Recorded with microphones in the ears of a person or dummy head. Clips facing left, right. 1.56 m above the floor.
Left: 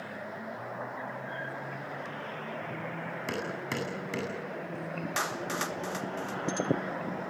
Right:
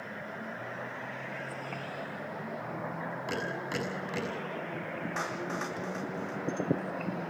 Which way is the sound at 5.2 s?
50° left (ahead or behind).